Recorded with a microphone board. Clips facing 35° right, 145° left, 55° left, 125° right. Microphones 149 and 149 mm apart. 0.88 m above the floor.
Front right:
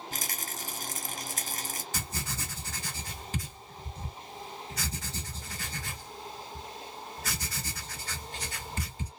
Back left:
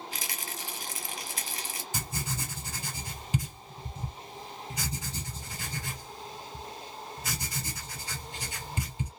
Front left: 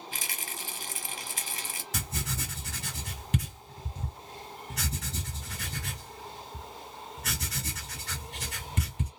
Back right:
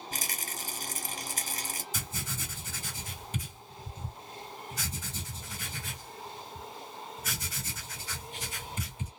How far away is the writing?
About 1.8 m.